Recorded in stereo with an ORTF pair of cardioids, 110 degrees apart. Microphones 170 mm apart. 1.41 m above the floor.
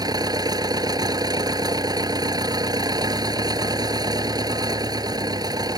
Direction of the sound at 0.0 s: 25° right.